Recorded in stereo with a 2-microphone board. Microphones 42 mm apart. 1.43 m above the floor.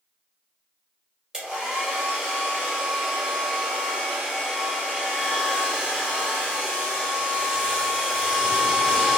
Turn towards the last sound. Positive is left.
turn(degrees=-15)  # may be behind; listen again after turning